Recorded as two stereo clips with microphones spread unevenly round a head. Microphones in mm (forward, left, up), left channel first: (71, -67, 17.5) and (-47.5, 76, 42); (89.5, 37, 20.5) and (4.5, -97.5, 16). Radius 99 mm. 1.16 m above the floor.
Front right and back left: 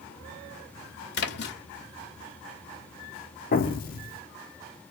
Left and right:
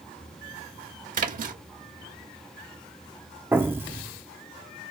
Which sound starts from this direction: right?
A splash, at 1.1 s.